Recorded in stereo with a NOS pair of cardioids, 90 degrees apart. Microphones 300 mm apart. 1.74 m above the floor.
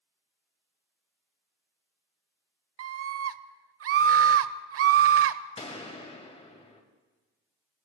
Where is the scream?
50° right, 1.0 m.